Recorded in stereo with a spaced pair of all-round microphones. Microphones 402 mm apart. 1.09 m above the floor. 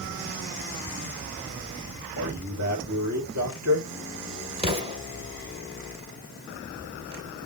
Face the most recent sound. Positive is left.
turn(degrees=-15)  # may be behind; listen again after turning